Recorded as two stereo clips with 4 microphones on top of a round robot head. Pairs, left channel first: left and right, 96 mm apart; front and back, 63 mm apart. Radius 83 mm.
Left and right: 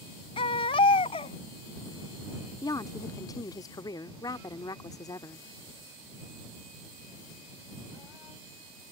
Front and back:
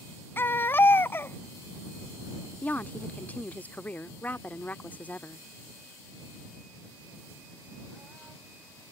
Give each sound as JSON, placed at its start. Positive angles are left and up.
{"t": 0.4, "sound": "a baby crying", "azimuth_deg": 50}
{"t": 2.6, "sound": "a woman speaking", "azimuth_deg": 55}